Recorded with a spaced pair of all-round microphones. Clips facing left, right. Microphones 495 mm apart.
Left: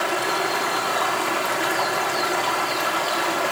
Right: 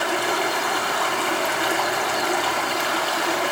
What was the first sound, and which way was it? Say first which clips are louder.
Running water: right 1 dB; centre (ahead or behind).